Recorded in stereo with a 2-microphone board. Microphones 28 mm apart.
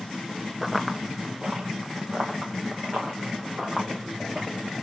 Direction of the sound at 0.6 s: 5° right (ahead or behind).